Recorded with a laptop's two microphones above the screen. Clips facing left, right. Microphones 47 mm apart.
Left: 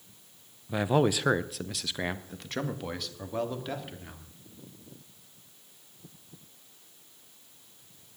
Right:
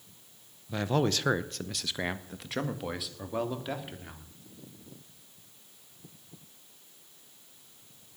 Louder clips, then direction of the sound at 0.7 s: Left 3 dB; 15° left (ahead or behind).